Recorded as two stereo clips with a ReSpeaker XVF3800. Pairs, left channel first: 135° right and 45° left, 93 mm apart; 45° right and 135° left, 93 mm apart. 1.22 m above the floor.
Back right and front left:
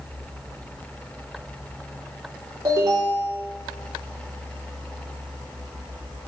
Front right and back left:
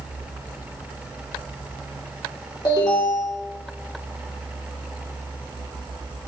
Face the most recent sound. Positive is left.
turn(degrees=-10)